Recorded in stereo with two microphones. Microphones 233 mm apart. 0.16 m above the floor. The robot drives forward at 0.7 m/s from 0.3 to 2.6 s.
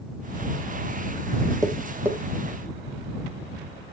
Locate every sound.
1.6 s tapping: 15° right (ahead or behind), 0.6 m; by 2.2 s 10° right (ahead or behind), 1.0 m